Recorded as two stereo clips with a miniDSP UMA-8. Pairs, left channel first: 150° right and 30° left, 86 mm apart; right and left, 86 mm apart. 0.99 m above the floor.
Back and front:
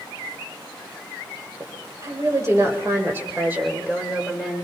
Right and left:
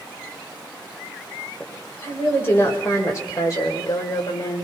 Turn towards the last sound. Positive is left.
turn(degrees=-50)